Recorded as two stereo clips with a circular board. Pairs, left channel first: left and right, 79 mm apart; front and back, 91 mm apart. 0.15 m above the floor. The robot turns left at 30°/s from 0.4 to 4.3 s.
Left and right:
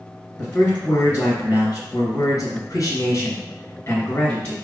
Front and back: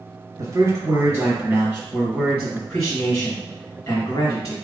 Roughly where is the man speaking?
Behind.